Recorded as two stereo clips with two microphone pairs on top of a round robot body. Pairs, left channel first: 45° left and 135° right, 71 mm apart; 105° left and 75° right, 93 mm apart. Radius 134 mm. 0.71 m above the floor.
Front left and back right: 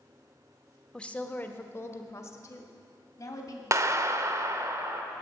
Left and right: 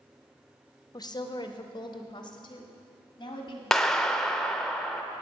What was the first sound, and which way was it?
A woman speaking, 100° left.